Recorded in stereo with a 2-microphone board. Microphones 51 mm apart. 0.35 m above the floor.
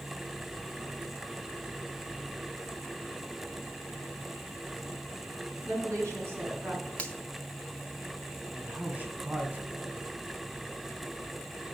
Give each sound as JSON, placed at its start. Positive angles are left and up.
{"t": 5.7, "sound": "a woman speaking", "side_deg": -50, "distance_m": 4.5}
{"t": 7.0, "sound": "a finger snap", "side_deg": 25, "distance_m": 1.2}
{"t": 8.6, "sound": "a man speaking", "side_deg": -30, "distance_m": 2.5}